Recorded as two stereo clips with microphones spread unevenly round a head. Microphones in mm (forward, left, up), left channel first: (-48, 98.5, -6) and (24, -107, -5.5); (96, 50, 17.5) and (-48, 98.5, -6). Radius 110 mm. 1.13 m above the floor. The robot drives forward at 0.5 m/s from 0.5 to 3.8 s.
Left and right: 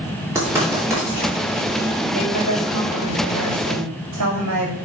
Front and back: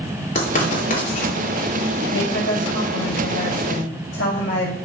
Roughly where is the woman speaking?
Ahead right.